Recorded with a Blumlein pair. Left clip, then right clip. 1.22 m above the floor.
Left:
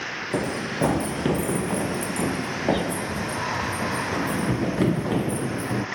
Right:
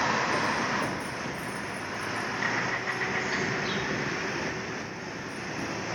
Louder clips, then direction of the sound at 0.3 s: Even; 30° left.